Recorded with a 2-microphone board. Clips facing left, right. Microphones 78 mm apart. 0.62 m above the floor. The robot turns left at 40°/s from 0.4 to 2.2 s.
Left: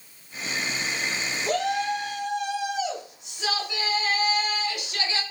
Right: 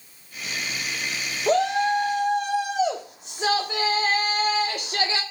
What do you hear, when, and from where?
1.5 s a shout: 30° right (ahead or behind), 1.5 m; by 5.2 s 45° right (ahead or behind), 1.5 m